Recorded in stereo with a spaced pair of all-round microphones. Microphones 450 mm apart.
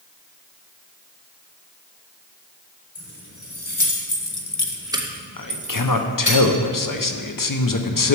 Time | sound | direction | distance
3.0 | keys jangling | 85° left | 2.5 m
5.4 | a man speaking | 45° left (ahead or behind) | 0.6 m